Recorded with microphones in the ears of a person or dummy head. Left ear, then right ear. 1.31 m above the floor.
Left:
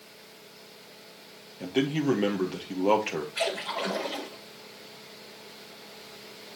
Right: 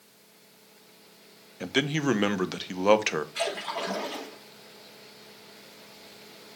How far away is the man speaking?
About 1.0 m.